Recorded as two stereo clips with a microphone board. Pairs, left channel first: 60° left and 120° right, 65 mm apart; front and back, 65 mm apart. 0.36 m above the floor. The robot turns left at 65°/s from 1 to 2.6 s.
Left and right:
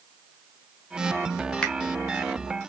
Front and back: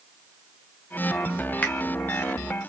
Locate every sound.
1.6 s a finger snap: 10° left, 0.9 m; by 1.7 s 5° left, 0.9 m